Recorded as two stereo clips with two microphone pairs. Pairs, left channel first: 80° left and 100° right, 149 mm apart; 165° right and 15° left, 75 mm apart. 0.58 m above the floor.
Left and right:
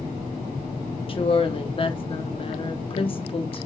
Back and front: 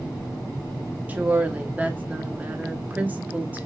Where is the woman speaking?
75° left, 0.7 m.